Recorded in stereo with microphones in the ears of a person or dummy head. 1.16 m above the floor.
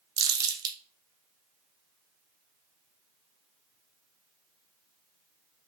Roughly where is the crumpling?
Right.